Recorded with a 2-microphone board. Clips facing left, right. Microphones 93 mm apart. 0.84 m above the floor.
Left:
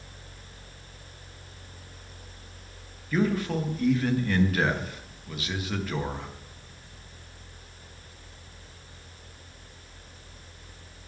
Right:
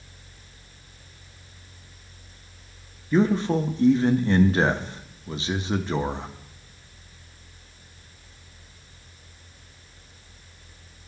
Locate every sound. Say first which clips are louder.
3.1 s a man speaking: right 5 dB; 30° right (ahead or behind), 0.5 m